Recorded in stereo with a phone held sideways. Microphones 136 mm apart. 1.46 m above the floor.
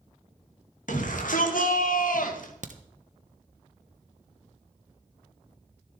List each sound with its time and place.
0.9 s a shout: 75° left (ahead or behind), 2.5 m; by 2.5 s 80° left, 1.9 m
2.6 s a crack: 65° right (ahead or behind), 1.0 m